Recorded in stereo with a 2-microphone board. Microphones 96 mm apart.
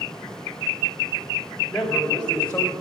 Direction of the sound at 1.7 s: 5° left (ahead or behind).